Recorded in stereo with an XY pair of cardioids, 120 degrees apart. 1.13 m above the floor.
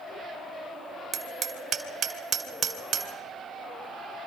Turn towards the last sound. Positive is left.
turn(degrees=-50)